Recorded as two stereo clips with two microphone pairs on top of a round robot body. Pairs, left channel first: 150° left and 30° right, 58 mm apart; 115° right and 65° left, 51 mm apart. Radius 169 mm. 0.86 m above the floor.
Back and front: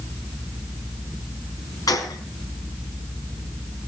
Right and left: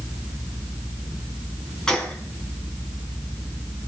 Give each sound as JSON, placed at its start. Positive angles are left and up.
{"t": 1.9, "sound": "a gunshot", "azimuth_deg": 165, "distance_m": 3.0}